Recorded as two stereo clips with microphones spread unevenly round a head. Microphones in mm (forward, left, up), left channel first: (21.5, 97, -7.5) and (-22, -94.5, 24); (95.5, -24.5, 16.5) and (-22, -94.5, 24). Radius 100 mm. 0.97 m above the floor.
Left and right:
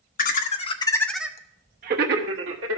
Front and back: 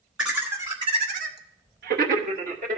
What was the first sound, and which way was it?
Laughter, 125° left.